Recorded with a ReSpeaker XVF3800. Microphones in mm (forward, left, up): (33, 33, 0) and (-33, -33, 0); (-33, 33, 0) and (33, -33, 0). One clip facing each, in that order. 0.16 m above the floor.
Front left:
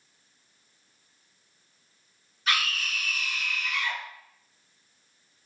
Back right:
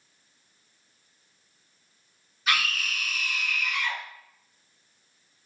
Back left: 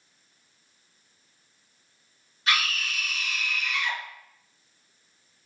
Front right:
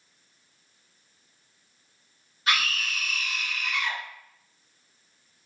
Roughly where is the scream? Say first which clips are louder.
Back right 1 dB, even; ahead right.